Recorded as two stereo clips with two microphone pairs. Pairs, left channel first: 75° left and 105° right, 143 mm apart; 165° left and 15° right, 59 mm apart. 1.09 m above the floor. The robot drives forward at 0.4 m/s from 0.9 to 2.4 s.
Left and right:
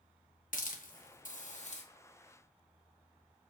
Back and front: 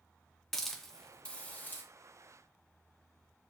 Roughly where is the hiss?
Left.